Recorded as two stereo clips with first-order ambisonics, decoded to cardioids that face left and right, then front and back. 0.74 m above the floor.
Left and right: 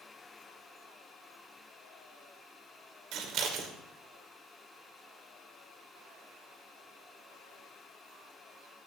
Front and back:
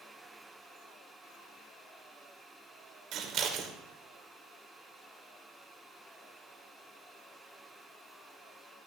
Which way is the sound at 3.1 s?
130° right.